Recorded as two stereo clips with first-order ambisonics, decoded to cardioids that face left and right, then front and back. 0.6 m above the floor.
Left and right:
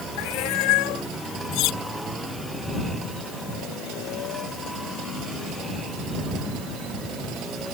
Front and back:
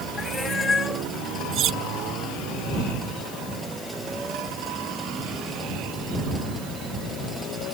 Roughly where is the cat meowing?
Left.